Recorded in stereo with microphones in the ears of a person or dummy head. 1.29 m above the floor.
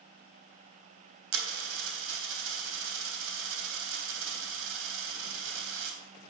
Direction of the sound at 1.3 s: 75° right (ahead or behind).